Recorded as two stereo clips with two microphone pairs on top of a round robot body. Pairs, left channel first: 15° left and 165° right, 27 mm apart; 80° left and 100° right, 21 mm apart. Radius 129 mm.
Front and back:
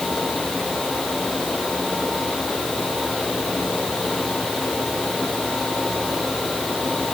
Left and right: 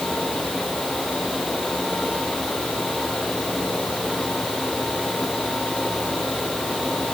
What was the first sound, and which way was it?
Only background noise.